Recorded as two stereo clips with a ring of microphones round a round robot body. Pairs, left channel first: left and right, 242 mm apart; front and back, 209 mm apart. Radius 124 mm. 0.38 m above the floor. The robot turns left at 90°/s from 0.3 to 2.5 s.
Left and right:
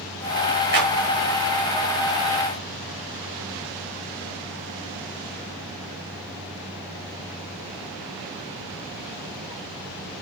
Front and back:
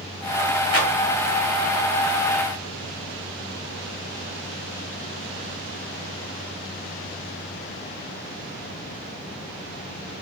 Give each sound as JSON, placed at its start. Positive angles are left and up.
{"t": 0.7, "sound": "a clap", "azimuth_deg": -40, "distance_m": 6.0}